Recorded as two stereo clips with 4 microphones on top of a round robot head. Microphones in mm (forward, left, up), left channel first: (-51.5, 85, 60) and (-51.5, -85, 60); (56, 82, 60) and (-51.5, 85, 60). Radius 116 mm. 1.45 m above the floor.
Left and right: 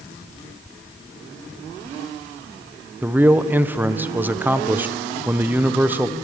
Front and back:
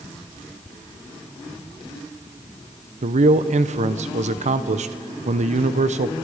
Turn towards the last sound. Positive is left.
turn(degrees=-170)